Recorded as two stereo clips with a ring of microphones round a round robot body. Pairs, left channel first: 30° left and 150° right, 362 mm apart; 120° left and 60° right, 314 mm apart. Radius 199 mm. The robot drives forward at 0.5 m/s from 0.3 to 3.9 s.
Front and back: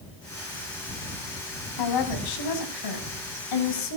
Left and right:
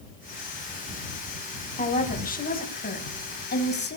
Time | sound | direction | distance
1.8 | a woman speaking | 55° left | 6 m